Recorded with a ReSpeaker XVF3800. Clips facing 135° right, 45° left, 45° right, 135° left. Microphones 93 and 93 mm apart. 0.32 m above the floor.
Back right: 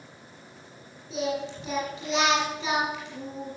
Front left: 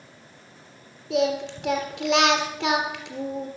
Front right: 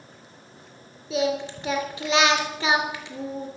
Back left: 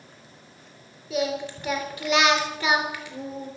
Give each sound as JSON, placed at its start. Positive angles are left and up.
{"t": 1.1, "sound": "singing", "azimuth_deg": 25, "distance_m": 3.0}